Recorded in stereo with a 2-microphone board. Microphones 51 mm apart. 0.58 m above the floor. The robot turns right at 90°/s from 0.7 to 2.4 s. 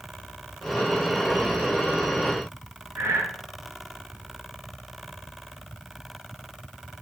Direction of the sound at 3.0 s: 85° right.